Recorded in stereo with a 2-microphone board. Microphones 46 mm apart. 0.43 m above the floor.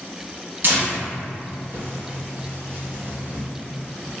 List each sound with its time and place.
0.6 s tearing paper: 50° right (ahead or behind), 1.1 m